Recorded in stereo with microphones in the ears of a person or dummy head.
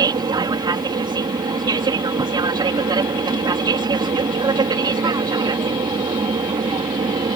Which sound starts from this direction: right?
An aircraft, at 0.0 s.